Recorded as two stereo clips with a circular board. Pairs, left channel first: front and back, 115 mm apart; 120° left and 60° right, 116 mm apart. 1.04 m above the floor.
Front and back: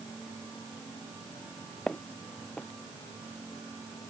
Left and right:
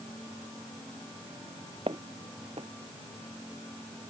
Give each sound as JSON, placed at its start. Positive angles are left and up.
{"t": 1.9, "sound": "footsteps", "azimuth_deg": -85}